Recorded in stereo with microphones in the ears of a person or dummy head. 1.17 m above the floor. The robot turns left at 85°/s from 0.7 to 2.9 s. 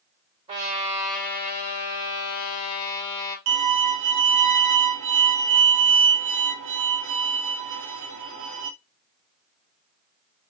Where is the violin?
80° right, 1.1 m.